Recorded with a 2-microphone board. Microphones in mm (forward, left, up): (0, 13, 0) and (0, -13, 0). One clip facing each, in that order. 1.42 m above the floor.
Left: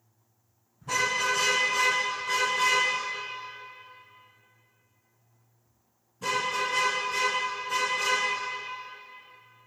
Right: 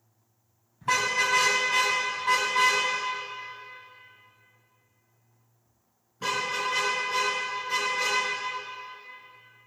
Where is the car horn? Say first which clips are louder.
Right 2 dB; 75° right (ahead or behind), 4 m; by 8.2 s 30° right (ahead or behind), 9.5 m.